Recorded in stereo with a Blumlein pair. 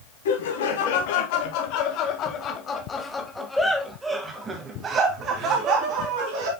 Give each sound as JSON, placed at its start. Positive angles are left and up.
{"t": 0.2, "sound": "laughter", "azimuth_deg": 60, "distance_m": 2.5}